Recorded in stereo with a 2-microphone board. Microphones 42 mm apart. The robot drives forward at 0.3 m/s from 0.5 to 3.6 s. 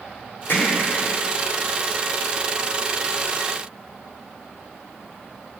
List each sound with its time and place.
0.5 s hammering: 60° left (ahead or behind), 1.8 m